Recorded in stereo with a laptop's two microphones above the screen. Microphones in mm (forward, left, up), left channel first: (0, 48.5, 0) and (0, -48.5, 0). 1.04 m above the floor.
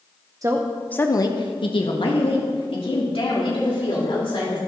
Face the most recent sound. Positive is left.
turn(degrees=80)